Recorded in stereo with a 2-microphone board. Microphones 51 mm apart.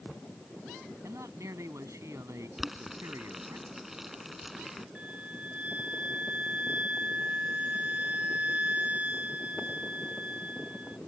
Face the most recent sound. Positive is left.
turn(degrees=-25)  # may be behind; listen again after turning